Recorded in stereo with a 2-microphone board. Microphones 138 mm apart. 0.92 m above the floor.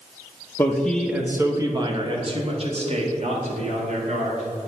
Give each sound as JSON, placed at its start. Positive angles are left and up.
{"t": 0.6, "sound": "a man speaking", "side_deg": 20, "distance_m": 0.8}